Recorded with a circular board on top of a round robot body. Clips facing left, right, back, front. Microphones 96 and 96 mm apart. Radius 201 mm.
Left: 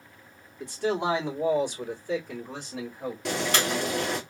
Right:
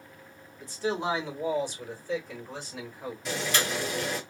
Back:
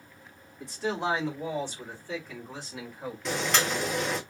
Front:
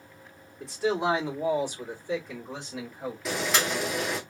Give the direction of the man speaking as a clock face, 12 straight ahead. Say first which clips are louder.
Left 3 dB, front 4 dB; 9 o'clock.